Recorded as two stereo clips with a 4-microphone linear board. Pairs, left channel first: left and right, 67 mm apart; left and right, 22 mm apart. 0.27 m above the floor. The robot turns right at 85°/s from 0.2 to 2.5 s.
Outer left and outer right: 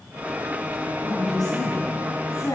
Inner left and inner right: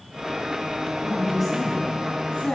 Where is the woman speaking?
25° right, 2.0 m; by 2.6 s 100° left, 2.0 m.